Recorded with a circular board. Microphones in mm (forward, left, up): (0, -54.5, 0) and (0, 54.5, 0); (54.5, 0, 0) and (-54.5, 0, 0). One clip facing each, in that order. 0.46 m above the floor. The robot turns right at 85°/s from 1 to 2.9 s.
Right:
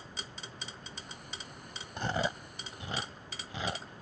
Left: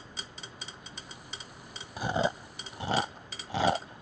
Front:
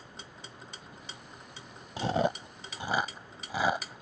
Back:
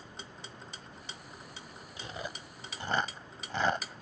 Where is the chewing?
5° left; by 4.0 s 85° left.